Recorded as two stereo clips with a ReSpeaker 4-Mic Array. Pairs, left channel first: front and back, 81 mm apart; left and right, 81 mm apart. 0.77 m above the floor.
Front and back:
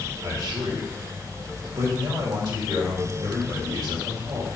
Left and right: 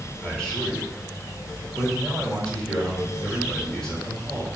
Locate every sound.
0.2 s a man speaking: 170° left, 3 m